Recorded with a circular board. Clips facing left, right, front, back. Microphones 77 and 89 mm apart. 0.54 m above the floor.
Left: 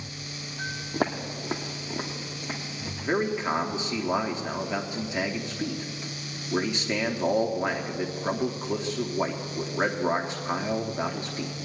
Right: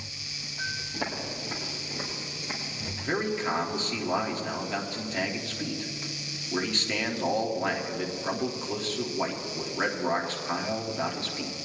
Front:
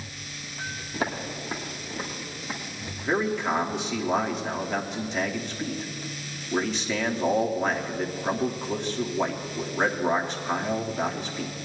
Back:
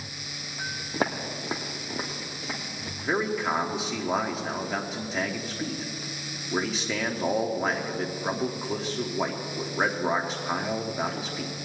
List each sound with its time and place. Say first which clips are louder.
0.9 s footsteps: left 7 dB, back 2 dB; 120° left, 1.3 m; by 2.9 s 145° left, 3.5 m
3.0 s a man speaking: left 2 dB, front 1 dB; 105° left, 0.8 m